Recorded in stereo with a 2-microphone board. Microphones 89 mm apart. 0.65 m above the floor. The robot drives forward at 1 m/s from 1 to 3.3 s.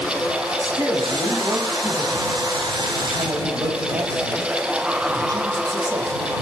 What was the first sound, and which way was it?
A man speaking, 35° right (ahead or behind).